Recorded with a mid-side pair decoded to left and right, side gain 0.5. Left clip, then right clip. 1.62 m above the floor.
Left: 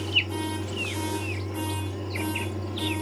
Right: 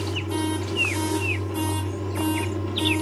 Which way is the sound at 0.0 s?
35° right.